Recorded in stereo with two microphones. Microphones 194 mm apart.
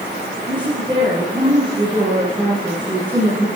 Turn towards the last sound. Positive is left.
turn(degrees=-25)  # may be behind; listen again after turning